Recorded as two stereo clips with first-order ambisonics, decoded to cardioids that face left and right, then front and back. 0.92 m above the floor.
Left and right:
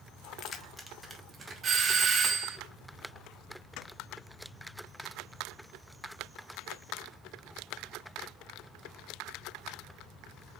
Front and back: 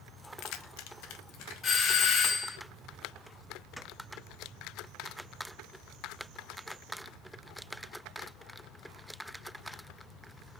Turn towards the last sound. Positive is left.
turn(degrees=-40)